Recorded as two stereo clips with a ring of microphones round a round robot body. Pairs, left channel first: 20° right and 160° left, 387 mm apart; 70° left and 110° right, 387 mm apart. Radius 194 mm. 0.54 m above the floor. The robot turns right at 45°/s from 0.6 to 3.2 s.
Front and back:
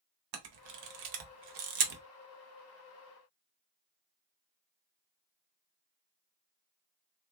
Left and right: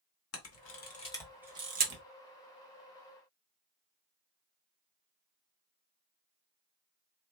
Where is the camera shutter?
125° left, 1.0 m; by 2.0 s 170° right, 1.0 m.